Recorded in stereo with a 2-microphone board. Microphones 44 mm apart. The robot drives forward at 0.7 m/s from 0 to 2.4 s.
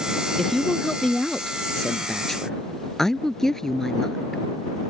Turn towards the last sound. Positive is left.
turn(degrees=10)  # may be behind; listen again after turning